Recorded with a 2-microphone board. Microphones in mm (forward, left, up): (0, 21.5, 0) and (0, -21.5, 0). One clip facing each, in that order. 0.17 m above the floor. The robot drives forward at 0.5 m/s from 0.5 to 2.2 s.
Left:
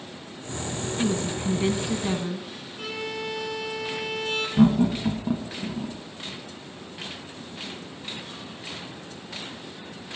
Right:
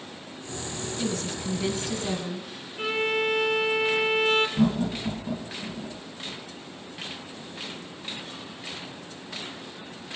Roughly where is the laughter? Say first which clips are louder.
Left 5 dB; left.